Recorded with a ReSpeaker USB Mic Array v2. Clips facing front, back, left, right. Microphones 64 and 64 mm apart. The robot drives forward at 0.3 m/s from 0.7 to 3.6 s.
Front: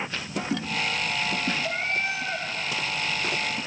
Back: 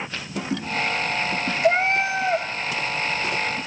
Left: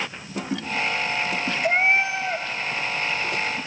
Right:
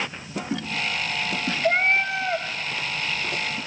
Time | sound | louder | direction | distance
1.6 | a cat meowing | back 8 dB, left 1 dB | 170° left | 0.5 m